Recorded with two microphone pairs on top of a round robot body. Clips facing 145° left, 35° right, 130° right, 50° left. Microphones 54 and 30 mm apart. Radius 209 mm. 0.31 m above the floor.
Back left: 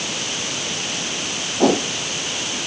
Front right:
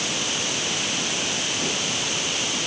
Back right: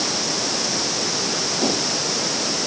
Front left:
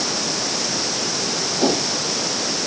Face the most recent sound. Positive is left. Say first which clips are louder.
# back left 10 dB, front left 4 dB
turn(degrees=125)